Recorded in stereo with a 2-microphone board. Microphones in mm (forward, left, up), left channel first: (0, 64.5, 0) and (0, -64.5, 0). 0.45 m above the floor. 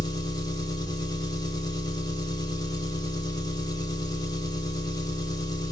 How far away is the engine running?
About 0.8 m.